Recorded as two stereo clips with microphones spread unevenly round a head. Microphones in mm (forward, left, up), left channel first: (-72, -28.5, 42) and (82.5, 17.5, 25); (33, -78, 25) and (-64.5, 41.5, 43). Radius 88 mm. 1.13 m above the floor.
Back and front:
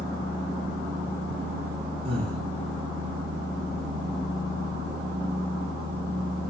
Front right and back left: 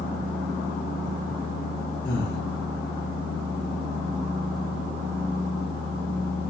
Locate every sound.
0.0 s a fan: 55° right, 3.5 m
2.0 s breathing: 40° right, 3.5 m